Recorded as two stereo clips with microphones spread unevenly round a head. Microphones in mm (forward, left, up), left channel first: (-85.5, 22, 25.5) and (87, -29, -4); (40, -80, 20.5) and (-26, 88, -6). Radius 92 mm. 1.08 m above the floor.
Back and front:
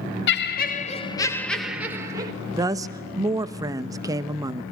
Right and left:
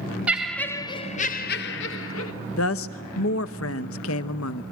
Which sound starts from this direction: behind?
Laughter, at 0.3 s.